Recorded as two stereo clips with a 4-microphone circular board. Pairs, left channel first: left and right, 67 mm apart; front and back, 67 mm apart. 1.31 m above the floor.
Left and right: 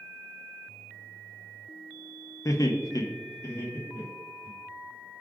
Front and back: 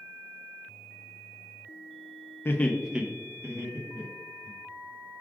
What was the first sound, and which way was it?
Laughter, 55° left.